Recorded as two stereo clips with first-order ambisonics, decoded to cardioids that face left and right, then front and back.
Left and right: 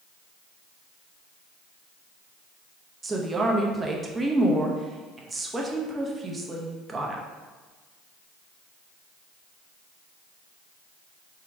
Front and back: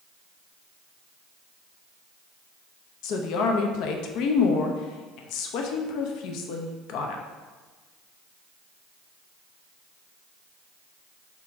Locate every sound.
3.0 s a woman speaking: 15° right, 0.6 m